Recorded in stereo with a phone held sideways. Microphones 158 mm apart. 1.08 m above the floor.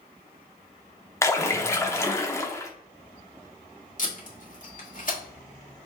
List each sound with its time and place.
1.2 s a splash: 15° left (ahead or behind), 0.7 m
4.0 s tape being pulled: 55° left (ahead or behind), 1.5 m